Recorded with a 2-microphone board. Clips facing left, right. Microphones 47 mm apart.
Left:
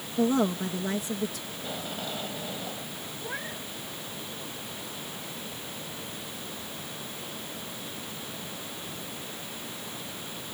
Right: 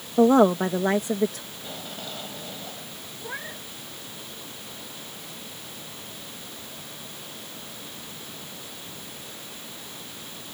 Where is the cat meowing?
5° right (ahead or behind).